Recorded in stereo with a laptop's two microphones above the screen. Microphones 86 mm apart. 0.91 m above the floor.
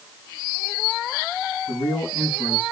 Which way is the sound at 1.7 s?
70° left (ahead or behind).